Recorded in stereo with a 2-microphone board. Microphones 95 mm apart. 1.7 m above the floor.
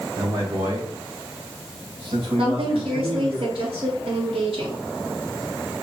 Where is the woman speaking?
75° right (ahead or behind), 3.5 m.